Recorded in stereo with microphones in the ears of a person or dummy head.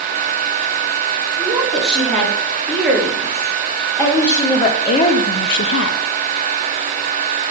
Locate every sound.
1.4 s a woman speaking: centre (ahead or behind), 4 m; by 6.0 s 55° left (ahead or behind), 0.6 m